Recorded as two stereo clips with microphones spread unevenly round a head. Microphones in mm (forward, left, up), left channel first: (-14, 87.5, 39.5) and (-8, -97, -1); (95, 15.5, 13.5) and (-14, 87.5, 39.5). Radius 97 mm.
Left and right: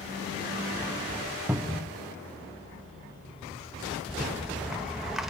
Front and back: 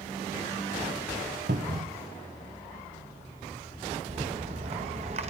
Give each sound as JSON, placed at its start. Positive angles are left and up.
{"t": 1.5, "sound": "a cupboard door", "azimuth_deg": -170, "distance_m": 1.1}
{"t": 4.1, "sound": "a rattle", "azimuth_deg": 175, "distance_m": 1.2}